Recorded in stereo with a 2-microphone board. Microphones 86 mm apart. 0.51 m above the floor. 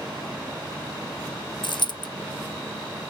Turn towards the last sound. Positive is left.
turn(degrees=60)  # may be behind; listen again after turning